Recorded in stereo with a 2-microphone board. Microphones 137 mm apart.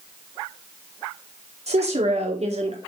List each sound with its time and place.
1.7 s a woman speaking: 60° right (ahead or behind), 2 m